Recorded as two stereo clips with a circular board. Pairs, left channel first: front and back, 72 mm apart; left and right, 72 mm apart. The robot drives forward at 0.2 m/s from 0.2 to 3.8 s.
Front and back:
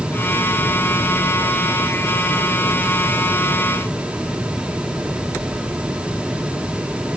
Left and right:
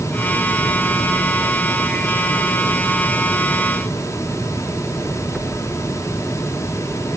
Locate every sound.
Only background noise.